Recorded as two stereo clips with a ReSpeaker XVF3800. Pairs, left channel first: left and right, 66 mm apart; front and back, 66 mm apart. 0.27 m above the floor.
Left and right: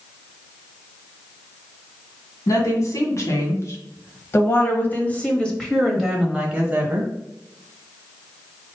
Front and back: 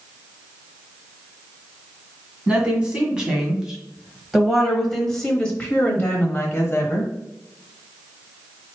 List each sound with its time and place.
2.5 s a woman speaking: 110° left, 1.9 m; by 7.1 s 35° right, 1.3 m